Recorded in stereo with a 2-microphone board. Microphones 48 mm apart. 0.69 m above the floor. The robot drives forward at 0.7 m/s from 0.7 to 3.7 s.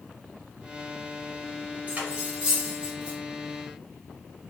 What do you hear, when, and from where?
1.9 s cutlery clinking: 35° right (ahead or behind), 1.9 m; by 3.2 s 25° right (ahead or behind), 2.5 m